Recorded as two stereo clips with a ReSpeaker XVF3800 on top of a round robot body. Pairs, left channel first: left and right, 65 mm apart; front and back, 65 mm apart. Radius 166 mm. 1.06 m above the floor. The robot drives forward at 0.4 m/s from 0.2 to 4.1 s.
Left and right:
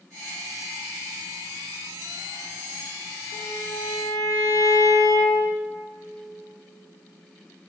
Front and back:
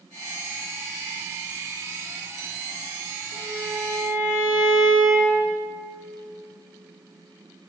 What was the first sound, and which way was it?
A violin, 115° left.